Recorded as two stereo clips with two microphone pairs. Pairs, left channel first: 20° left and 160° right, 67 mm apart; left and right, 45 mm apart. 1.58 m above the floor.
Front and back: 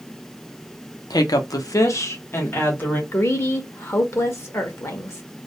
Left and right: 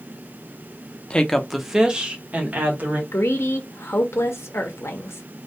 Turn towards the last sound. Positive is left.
turn(degrees=70)